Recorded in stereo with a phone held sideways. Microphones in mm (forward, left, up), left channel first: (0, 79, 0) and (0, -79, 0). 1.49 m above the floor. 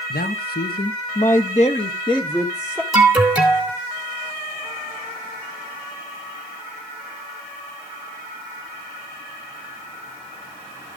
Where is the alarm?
10° right (ahead or behind), 3 m.